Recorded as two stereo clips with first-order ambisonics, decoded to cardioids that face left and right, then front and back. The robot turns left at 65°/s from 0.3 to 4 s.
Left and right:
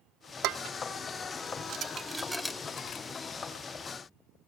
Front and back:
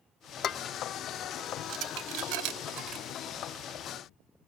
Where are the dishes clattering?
55° right, 0.8 m; by 3.0 s 135° left, 0.8 m.